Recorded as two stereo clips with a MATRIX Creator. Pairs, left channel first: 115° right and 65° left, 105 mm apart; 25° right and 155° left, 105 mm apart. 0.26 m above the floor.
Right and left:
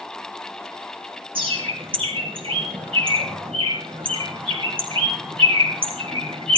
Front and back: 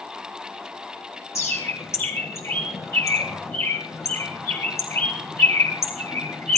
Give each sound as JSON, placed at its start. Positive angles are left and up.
{"t": 1.4, "sound": "a bird", "azimuth_deg": 40, "distance_m": 3.0}